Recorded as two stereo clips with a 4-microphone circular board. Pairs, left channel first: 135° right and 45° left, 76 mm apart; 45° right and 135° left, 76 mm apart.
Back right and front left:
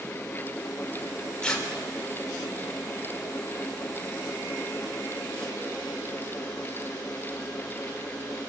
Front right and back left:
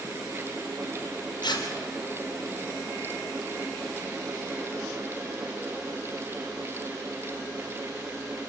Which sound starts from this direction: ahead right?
Tearing paper, at 1.4 s.